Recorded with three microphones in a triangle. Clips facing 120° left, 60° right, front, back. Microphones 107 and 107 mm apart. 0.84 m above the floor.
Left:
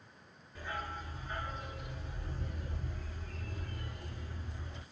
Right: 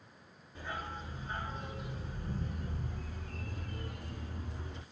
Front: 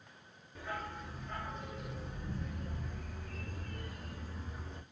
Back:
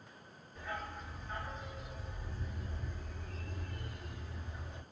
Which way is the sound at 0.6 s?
5° left.